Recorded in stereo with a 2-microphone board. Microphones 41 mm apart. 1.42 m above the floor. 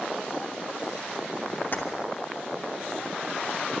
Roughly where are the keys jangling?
Left.